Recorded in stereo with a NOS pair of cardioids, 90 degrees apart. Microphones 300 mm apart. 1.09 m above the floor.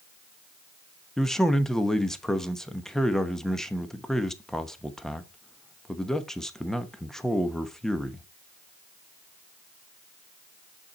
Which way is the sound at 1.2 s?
Straight ahead.